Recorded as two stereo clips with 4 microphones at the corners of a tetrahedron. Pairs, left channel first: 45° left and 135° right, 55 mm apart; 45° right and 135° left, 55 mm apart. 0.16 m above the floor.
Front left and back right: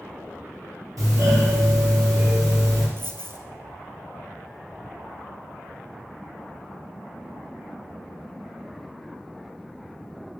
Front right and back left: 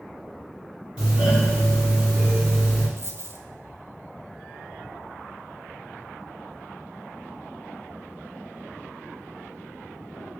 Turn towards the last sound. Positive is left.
turn(degrees=180)